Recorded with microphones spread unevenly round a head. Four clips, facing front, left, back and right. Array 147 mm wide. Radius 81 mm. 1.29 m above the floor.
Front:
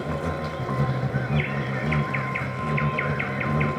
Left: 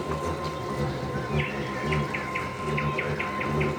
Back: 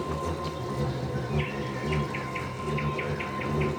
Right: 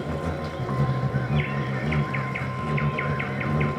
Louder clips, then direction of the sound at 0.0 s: Even, front 3 dB; straight ahead.